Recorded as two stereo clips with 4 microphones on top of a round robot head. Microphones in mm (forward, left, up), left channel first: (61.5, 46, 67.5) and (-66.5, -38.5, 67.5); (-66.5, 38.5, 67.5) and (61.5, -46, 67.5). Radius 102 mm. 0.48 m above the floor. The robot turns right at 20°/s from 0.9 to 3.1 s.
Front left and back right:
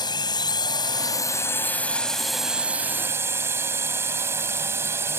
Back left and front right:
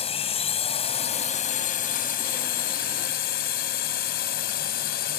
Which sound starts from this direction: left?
A drone, at 0.0 s.